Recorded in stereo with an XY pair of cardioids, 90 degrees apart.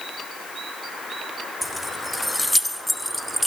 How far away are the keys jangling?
About 1.8 m.